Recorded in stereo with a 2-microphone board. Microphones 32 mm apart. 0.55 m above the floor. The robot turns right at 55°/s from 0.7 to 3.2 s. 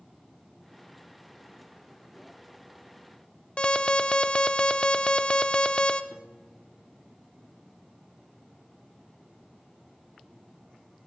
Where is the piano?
35° left (ahead or behind), 1.0 m.